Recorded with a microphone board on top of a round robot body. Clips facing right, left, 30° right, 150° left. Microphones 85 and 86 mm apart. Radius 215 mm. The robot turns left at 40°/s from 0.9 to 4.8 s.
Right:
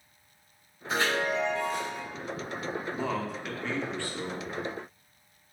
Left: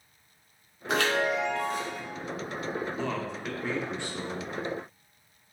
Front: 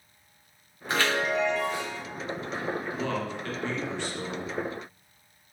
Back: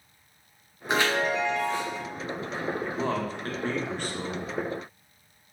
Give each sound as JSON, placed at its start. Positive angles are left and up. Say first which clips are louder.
{"t": 0.9, "sound": "a chime", "louder": "left 2 dB, back 1 dB", "azimuth_deg": 80, "distance_m": 1.3}
{"t": 2.9, "sound": "a man speaking", "louder": "right 1 dB, back 2 dB", "azimuth_deg": -165, "distance_m": 1.1}